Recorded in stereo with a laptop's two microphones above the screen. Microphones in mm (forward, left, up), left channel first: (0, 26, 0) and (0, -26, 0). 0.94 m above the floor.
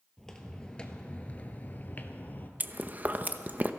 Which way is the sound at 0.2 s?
5° left (ahead or behind).